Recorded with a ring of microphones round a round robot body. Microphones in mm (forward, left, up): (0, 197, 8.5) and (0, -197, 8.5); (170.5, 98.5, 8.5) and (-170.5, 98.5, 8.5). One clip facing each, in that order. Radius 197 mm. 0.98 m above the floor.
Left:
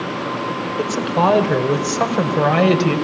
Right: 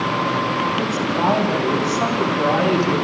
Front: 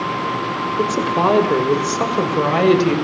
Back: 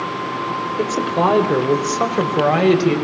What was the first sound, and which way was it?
A woman speaking, 85° left.